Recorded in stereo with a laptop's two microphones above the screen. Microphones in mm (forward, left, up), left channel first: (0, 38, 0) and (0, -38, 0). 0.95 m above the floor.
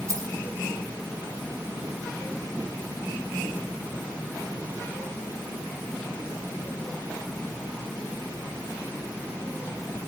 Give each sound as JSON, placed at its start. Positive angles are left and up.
{"t": 0.1, "sound": "keys jangling", "side_deg": -45, "distance_m": 4.0}